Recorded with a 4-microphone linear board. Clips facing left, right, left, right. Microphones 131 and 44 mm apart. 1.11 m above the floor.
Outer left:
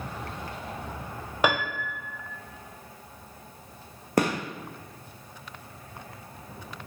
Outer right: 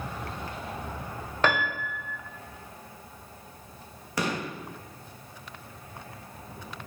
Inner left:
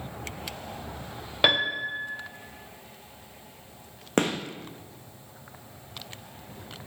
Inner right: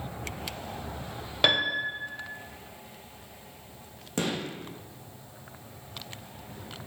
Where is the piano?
10° left (ahead or behind), 0.8 m.